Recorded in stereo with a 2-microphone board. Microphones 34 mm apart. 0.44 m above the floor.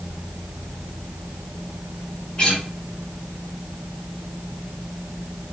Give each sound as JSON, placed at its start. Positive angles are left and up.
{"t": 2.4, "sound": "a guitar", "side_deg": 25, "distance_m": 1.4}